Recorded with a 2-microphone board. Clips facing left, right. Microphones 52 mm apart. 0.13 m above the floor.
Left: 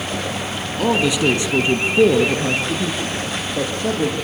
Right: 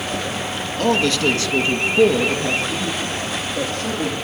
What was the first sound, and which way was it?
A man speaking, 10° left (ahead or behind).